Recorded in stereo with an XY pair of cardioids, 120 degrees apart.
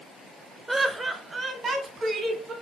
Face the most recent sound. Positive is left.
turn(degrees=-45)